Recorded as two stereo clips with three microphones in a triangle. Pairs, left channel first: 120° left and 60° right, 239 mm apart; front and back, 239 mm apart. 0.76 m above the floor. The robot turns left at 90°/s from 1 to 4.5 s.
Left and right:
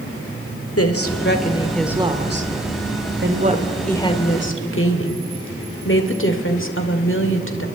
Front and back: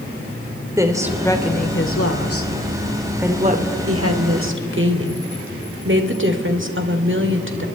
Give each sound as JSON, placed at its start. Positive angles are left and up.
{"t": 0.8, "sound": "a woman speaking", "azimuth_deg": 105, "distance_m": 2.0}